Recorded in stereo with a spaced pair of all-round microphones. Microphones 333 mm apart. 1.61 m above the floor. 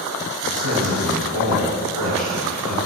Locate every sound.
0.4 s a man speaking: 80° right, 7.5 m